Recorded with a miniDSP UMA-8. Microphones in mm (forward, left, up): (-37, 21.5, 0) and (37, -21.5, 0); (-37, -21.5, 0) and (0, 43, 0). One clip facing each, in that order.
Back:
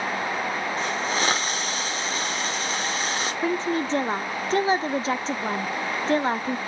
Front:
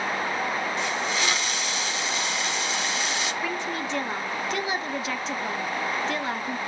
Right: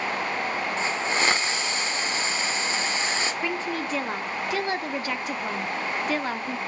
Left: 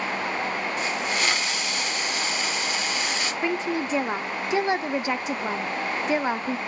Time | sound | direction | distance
0.8 | a hiss | 170° right | 1.2 m
3.4 | a woman speaking | 120° left | 0.9 m